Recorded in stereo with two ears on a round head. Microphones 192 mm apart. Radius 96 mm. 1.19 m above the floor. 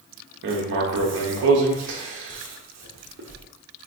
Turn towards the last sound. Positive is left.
turn(degrees=-55)  # may be behind; listen again after turning